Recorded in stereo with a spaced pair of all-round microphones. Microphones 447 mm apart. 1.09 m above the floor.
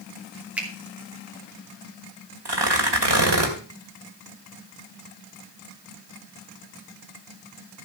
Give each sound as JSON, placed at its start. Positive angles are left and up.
{"t": 0.6, "sound": "a finger snap", "side_deg": -5, "distance_m": 2.5}
{"t": 2.5, "sound": "tearing paper", "side_deg": -65, "distance_m": 2.0}